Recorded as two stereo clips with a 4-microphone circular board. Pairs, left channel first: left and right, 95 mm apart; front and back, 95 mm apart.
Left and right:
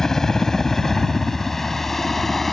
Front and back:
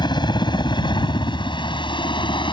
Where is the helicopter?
5° left.